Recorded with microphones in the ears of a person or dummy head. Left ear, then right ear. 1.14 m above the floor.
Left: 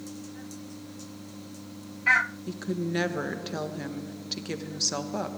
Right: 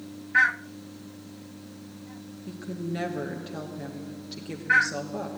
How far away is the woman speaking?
About 1.3 m.